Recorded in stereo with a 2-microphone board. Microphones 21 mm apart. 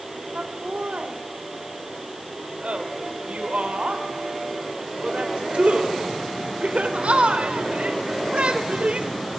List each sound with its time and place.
0.3 s laughter: 70° right (ahead or behind), 3 m